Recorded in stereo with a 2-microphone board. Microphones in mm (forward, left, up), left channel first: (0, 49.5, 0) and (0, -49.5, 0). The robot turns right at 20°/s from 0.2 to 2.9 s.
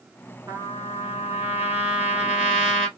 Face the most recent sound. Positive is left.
turn(degrees=-5)